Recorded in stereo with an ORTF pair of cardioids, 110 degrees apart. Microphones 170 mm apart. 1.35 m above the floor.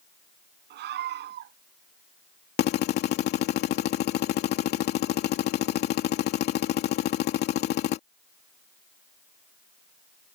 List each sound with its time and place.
0.7 s a scream: 70° right
2.6 s a drill: 65° left